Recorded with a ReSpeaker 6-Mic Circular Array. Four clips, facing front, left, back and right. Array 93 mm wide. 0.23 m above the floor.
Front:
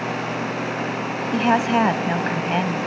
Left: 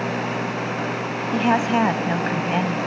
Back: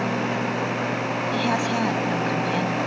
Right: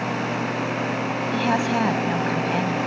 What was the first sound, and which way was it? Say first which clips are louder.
A woman speaking: left 4 dB, front 7 dB; 25° left.